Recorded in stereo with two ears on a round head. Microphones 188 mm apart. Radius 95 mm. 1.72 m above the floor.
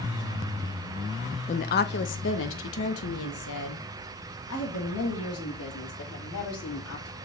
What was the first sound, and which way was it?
A woman speaking, 30° left (ahead or behind).